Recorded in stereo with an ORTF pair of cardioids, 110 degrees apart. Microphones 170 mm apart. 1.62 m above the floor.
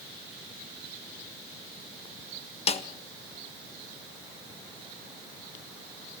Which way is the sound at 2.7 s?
35° left.